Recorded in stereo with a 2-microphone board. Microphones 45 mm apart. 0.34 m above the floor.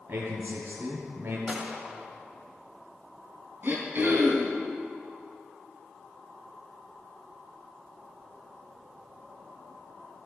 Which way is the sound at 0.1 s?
55° right (ahead or behind).